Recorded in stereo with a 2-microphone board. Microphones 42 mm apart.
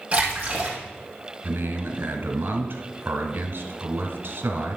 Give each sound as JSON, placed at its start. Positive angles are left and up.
{"t": 0.1, "sound": "a splash", "side_deg": -30, "distance_m": 3.0}
{"t": 1.4, "sound": "a man speaking", "side_deg": -55, "distance_m": 1.7}